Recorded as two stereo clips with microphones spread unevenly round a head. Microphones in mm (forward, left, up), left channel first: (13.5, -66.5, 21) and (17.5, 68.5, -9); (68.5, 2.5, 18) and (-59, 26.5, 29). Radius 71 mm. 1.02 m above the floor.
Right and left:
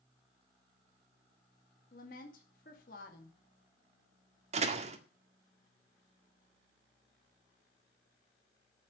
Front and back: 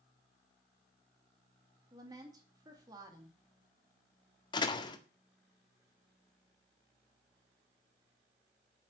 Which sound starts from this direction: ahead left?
A door slam, at 4.5 s.